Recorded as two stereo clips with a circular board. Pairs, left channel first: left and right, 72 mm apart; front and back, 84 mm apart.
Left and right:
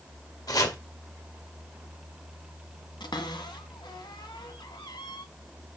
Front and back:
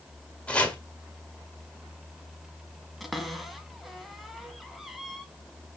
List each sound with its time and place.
0.5 s chopping: 70° left, 1.8 m
3.0 s a cupboard door: 90° left, 1.4 m